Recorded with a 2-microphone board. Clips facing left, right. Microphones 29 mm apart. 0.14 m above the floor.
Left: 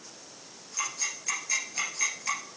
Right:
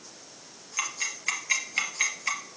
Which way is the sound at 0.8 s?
35° right (ahead or behind).